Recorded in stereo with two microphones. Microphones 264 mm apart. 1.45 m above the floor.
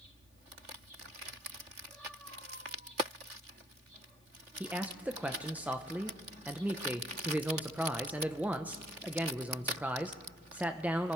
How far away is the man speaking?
About 0.6 m.